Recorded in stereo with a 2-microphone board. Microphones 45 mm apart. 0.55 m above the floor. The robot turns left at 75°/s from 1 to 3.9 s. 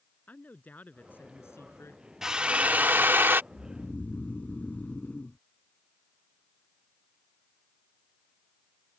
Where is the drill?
15° right; by 3.4 s 105° right.